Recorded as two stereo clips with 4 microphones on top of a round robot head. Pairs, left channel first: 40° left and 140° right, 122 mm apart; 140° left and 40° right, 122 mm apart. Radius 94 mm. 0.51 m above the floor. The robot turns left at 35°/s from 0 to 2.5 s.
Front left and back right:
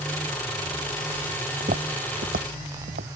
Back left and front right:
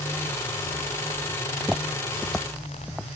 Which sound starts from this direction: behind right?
Footsteps, at 1.6 s.